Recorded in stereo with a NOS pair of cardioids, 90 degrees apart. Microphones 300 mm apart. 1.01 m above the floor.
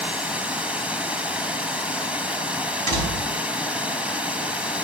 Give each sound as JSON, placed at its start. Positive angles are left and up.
{"t": 0.0, "sound": "running water", "azimuth_deg": -5, "distance_m": 1.1}
{"t": 2.9, "sound": "a door slam", "azimuth_deg": -70, "distance_m": 4.5}